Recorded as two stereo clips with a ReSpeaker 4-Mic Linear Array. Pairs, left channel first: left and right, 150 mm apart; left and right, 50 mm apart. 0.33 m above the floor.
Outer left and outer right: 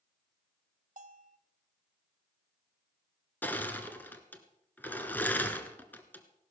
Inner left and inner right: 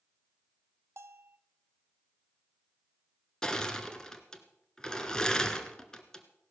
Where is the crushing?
10° left (ahead or behind), 1.3 m.